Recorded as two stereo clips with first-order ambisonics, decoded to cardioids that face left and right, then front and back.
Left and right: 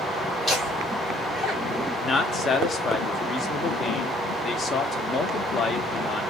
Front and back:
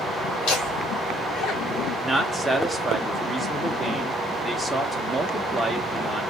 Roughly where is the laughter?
Ahead.